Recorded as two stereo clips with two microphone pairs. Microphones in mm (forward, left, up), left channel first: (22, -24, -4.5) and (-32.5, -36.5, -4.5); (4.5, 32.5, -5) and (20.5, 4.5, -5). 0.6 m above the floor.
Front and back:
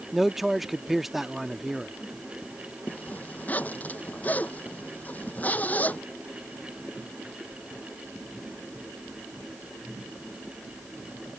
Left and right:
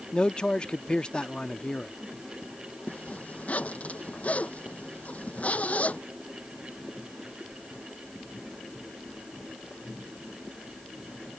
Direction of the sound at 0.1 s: 115° left.